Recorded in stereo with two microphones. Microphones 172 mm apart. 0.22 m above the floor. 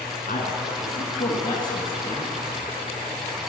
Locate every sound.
0.3 s a man speaking: 60° left (ahead or behind), 2 m; by 2.3 s centre (ahead or behind), 1.3 m